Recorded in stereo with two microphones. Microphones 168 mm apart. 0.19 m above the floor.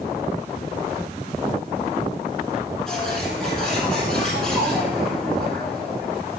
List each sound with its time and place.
2.9 s a bird: 5° left (ahead or behind), 6 m